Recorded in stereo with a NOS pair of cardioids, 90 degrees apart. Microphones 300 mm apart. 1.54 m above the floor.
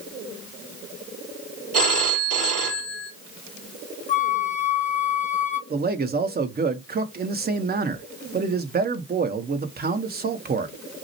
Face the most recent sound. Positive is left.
turn(degrees=-30)